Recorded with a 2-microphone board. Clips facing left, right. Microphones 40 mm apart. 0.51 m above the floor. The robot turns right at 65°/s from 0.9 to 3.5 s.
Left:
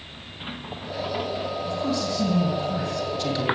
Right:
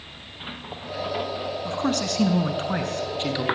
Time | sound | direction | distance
1.6 | a man speaking | 140° right | 5 m